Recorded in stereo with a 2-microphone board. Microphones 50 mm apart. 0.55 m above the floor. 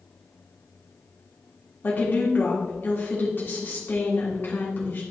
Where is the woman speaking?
40° left (ahead or behind), 1.5 m.